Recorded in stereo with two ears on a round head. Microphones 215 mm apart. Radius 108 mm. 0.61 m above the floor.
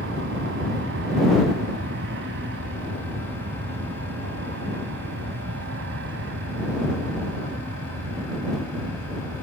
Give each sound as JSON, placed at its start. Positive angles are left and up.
{"t": 0.0, "sound": "an aircraft", "side_deg": -50}